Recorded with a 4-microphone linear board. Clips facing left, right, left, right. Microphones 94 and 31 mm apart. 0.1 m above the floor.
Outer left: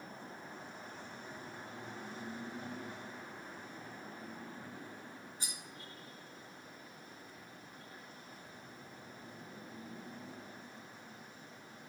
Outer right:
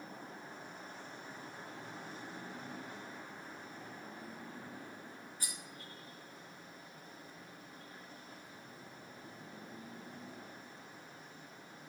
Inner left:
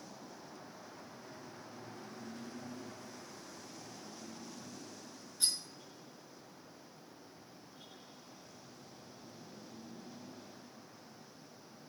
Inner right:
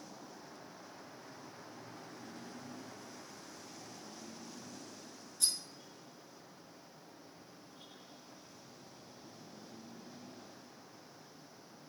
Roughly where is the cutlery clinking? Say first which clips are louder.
Outer right 1 dB, inner left 1 dB; left.